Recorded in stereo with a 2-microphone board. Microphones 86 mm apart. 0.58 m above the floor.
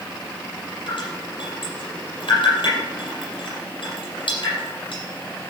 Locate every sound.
0.9 s dripping: 60° left (ahead or behind), 6 m